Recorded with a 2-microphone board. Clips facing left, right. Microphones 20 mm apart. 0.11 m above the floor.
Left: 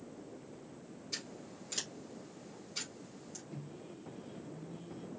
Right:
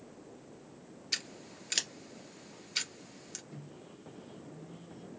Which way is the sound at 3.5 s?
5° right (ahead or behind).